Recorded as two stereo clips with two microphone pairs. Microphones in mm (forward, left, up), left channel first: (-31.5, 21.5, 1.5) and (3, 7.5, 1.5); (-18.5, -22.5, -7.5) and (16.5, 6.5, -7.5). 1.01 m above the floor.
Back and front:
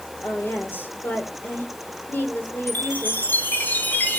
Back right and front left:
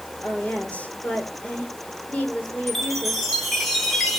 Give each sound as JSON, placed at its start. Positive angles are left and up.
{"t": 0.2, "sound": "a woman speaking", "azimuth_deg": 160, "distance_m": 2.5}
{"t": 2.7, "sound": "a chime", "azimuth_deg": 130, "distance_m": 1.9}